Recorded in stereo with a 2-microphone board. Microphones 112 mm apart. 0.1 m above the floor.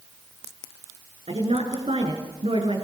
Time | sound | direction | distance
1.3 | a woman speaking | 60° right (ahead or behind) | 7.5 m